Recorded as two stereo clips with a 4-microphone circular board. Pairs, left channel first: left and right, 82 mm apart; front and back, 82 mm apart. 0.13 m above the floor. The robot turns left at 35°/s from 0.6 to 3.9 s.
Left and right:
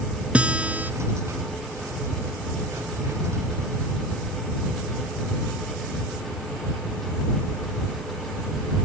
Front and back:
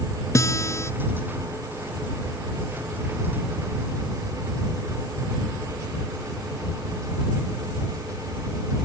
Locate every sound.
0.3 s a guitar: 25° right; by 0.9 s 35° right